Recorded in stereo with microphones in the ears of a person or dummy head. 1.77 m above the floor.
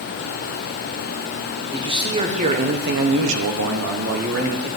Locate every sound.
1.7 s a man speaking: 25° right (ahead or behind), 1.9 m; by 4.7 s 55° right (ahead or behind), 2.0 m